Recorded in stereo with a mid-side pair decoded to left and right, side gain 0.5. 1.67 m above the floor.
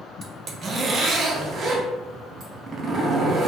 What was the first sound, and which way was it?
A zipper, 45° right.